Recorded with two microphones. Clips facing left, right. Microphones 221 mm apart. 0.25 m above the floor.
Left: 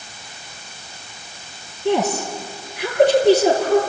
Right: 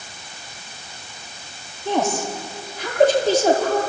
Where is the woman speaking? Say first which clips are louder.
Left 3 dB; 70° left (ahead or behind), 5 m.